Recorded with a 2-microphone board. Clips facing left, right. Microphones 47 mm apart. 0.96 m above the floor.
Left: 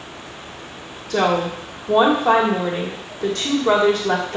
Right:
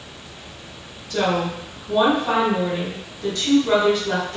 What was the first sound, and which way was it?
A woman speaking, 65° left (ahead or behind).